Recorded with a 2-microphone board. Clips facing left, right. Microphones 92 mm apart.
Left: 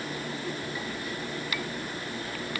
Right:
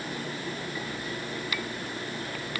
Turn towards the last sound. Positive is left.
No sound to turn to.